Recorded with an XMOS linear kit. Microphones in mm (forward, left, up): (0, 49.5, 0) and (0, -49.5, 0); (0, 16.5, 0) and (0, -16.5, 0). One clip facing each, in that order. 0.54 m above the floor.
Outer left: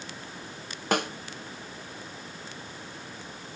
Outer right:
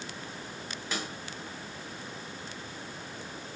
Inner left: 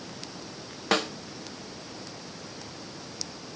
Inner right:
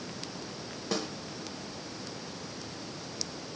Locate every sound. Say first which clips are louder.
0.9 s a snare drum: outer left 10 dB, inner left 8 dB; 65° left (ahead or behind), 1.0 m